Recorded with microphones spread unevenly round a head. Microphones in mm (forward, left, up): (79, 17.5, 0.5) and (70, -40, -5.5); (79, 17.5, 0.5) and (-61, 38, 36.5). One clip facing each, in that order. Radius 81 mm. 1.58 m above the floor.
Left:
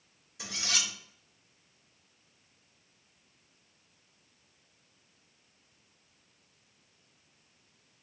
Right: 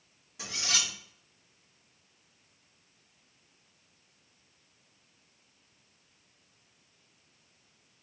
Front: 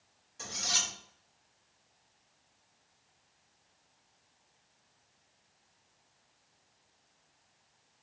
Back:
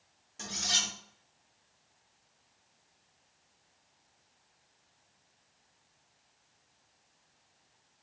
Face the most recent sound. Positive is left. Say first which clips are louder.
# right 1 dB, back 1 dB
turn(degrees=-150)